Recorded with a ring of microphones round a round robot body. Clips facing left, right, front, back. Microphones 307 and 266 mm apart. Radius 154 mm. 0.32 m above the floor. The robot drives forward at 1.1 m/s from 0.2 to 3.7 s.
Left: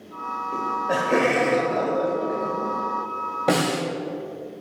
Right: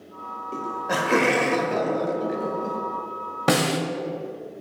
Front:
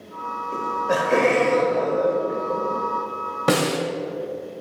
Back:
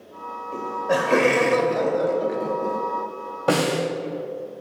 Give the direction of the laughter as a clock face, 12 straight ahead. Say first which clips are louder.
Left 2 dB, back 1 dB; 1 o'clock.